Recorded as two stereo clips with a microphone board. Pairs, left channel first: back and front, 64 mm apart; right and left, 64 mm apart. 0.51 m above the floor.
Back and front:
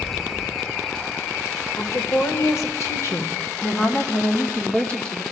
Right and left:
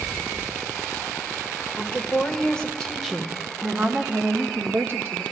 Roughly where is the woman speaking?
Behind.